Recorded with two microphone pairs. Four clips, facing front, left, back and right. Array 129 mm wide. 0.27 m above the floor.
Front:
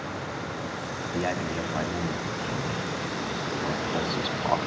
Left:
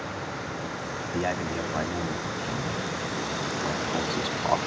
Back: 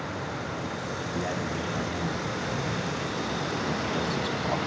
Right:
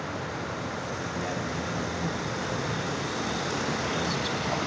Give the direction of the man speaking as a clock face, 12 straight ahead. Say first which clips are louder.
Left 6 dB, front 4 dB; 11 o'clock.